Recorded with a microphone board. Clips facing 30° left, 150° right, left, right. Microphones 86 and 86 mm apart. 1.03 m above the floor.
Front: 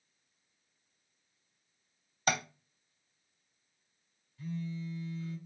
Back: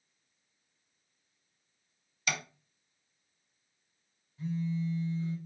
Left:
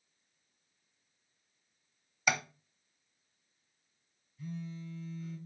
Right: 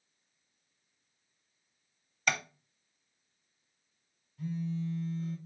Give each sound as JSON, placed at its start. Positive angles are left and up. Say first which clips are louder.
{"t": 2.3, "sound": "tapping", "louder": "front 5 dB, left 1 dB", "azimuth_deg": 10, "distance_m": 0.6}
{"t": 4.4, "sound": "a phone buzzing", "louder": "back 5 dB, right 7 dB", "azimuth_deg": -85, "distance_m": 1.5}